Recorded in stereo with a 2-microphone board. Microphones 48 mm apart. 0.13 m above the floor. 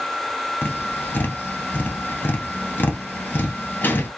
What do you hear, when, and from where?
0.6 s tapping: 45° left (ahead or behind), 1.1 m